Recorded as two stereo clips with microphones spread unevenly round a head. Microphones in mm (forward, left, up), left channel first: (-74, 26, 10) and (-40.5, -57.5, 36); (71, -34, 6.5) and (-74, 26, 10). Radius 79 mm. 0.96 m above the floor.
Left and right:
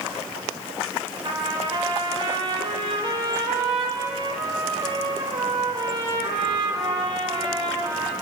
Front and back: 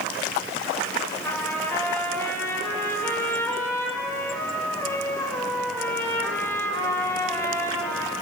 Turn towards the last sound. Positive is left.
turn(degrees=-100)